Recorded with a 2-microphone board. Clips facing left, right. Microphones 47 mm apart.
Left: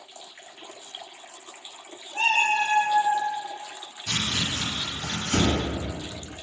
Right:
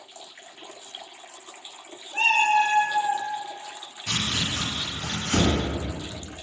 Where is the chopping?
45° right (ahead or behind), 1.6 m.